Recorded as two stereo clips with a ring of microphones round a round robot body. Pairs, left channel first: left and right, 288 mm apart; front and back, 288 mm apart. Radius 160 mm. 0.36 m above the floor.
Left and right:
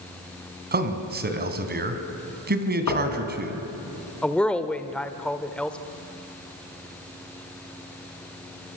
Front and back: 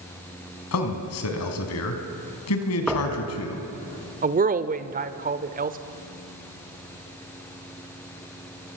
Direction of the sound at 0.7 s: 35° right.